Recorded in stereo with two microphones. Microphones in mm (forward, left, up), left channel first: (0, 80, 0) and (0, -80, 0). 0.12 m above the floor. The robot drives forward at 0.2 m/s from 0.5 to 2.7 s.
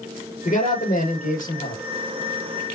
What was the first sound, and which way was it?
A man speaking, 55° left (ahead or behind).